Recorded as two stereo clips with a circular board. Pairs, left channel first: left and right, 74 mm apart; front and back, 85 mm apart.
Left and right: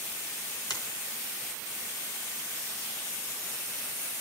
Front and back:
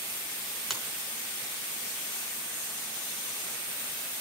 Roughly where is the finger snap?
Left.